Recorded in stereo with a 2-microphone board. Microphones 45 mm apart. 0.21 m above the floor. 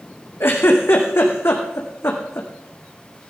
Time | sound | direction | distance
0.4 | a giggle | 65° left (ahead or behind) | 2.5 m